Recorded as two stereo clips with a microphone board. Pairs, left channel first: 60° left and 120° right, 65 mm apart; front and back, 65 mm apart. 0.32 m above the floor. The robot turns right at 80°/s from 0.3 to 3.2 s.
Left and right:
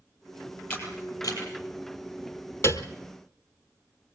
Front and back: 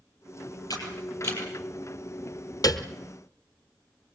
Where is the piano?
15° left, 1.4 m; by 2.9 s 35° left, 1.4 m.